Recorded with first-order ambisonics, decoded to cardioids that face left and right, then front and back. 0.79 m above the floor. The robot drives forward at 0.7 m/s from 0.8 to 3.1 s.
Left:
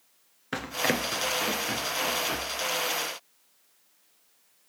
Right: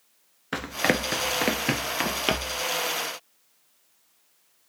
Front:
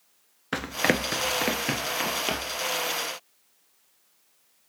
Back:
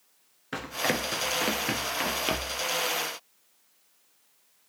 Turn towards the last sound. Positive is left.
turn(degrees=-110)